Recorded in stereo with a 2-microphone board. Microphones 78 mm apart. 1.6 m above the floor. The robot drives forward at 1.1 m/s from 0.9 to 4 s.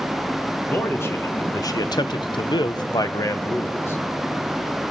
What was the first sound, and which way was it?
A man speaking, 35° left (ahead or behind).